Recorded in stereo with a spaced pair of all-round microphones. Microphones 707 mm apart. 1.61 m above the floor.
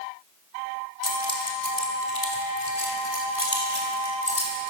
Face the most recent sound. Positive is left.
turn(degrees=45)  # may be behind; listen again after turning